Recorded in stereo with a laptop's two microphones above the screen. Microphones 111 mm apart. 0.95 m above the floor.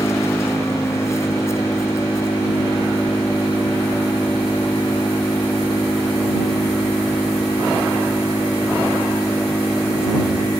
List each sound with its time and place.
0.0 s an engine running: 25° left (ahead or behind)